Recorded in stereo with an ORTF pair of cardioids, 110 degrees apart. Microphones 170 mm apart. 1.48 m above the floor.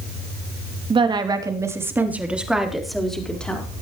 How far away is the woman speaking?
About 3 m.